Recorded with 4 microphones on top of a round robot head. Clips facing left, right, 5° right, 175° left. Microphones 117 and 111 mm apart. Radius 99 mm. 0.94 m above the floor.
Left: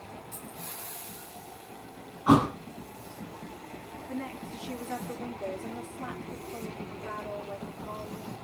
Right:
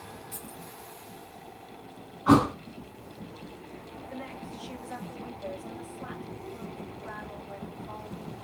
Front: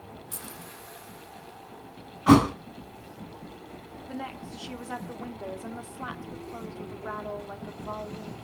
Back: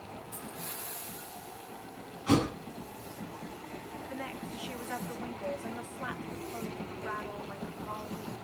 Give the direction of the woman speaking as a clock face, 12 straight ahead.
10 o'clock.